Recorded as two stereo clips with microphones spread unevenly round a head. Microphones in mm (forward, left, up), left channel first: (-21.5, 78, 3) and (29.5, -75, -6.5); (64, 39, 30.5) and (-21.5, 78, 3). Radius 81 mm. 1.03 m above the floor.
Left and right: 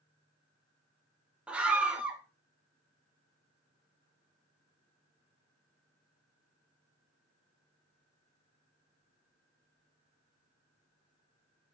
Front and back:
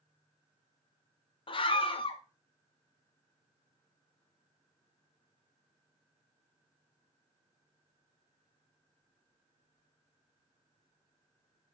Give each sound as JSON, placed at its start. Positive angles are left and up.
{"t": 1.5, "sound": "a scream", "azimuth_deg": 10, "distance_m": 0.9}